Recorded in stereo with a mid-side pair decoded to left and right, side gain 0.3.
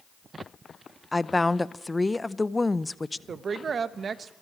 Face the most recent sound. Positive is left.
turn(degrees=-65)